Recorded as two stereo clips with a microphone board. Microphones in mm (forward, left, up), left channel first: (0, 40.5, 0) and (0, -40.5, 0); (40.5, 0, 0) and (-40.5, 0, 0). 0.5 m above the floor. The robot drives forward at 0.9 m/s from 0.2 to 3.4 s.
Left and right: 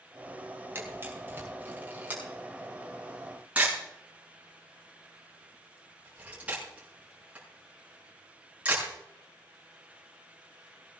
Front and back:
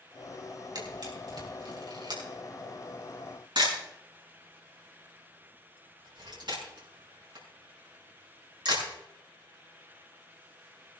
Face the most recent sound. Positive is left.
turn(degrees=-160)